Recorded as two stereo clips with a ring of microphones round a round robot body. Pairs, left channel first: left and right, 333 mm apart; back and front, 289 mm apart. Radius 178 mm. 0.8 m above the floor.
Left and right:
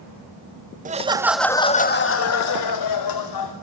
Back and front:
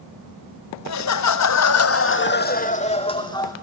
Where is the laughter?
155° right, 1.7 m; by 3.5 s 105° left, 3 m.